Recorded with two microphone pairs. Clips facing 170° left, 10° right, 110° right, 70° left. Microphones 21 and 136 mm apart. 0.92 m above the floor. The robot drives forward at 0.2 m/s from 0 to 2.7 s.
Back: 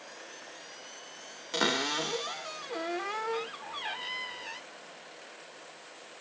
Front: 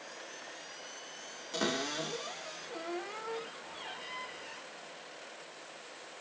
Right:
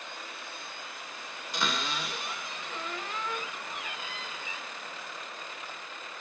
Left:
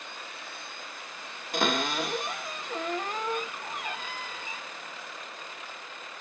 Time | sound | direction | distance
1.5 | a cupboard door | 105° left | 1.2 m